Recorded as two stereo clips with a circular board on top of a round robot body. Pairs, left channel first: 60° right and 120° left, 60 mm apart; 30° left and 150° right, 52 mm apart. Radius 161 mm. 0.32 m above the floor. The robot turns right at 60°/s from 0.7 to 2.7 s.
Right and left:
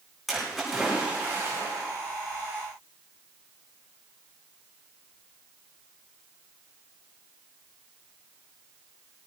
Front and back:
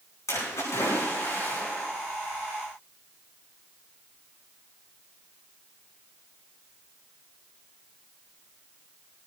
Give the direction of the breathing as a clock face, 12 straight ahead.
No breathing in this recording.